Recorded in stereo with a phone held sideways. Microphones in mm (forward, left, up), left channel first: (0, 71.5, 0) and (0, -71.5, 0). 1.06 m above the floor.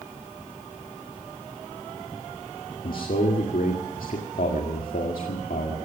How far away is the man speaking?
About 1.8 m.